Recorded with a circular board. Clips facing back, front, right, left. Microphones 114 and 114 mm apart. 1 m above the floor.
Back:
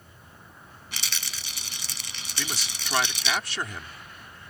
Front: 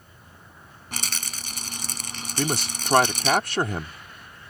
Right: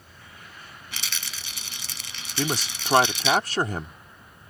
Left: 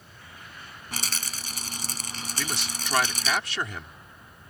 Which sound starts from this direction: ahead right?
A man speaking, at 2.4 s.